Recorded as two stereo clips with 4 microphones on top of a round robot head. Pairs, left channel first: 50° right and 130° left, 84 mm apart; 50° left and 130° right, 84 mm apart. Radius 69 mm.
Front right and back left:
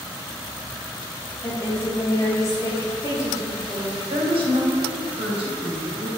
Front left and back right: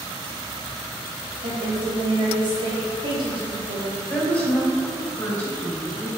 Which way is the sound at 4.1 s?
115° left.